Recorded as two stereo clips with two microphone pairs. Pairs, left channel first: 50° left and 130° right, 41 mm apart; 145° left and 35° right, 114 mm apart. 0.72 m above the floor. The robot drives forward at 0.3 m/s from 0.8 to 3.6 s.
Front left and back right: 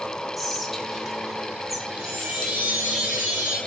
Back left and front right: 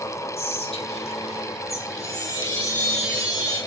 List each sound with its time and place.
0.4 s whispering: 135° left, 1.9 m; by 1.8 s 140° left, 2 m
1.9 s a chime: 160° right, 5 m; by 3.6 s 165° right, 5.5 m